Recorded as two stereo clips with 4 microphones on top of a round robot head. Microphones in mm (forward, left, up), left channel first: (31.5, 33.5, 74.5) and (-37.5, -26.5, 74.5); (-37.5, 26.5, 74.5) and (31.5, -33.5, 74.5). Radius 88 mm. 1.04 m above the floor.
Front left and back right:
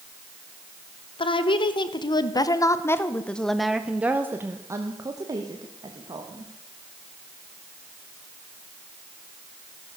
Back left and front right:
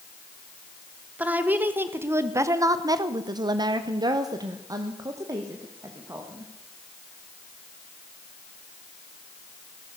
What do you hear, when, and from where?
1.2 s a woman speaking: 30° left, 1.4 m; by 6.5 s 105° right, 2.0 m